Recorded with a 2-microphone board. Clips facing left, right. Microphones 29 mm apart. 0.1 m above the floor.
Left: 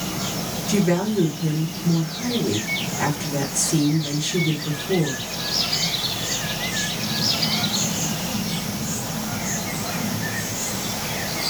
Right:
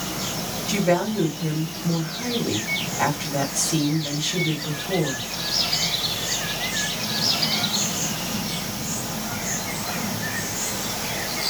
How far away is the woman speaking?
About 2.0 m.